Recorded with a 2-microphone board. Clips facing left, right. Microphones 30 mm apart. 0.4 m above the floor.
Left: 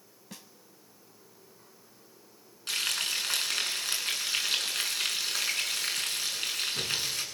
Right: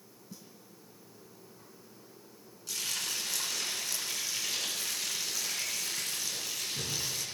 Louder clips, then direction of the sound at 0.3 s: Left 3 dB; 75° left (ahead or behind).